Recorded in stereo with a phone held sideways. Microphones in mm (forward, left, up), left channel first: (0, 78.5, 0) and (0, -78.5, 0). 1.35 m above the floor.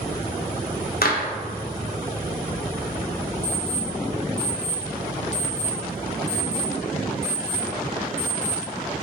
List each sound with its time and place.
1.0 s a clap: 70° left (ahead or behind), 1.1 m
3.4 s an alarm clock: 40° left (ahead or behind), 1.7 m